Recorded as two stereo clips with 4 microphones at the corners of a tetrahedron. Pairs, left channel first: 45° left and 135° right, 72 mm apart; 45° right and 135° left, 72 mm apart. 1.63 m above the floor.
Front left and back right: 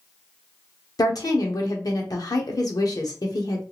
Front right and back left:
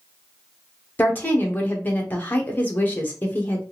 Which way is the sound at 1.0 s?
20° left.